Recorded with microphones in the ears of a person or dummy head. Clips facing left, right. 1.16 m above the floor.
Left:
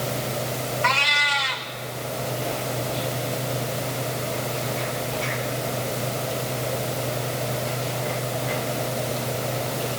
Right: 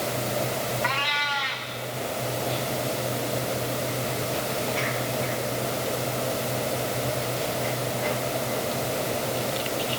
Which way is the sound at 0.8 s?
45° left (ahead or behind).